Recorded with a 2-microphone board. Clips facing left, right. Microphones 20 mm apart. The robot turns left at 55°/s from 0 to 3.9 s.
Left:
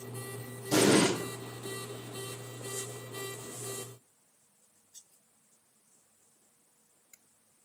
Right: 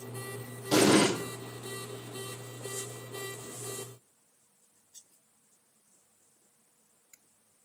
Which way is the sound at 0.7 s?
45° right (ahead or behind).